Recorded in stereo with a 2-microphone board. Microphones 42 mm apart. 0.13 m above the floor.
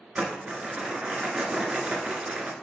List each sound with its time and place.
0.1 s crumpling: 30° right (ahead or behind), 1.4 m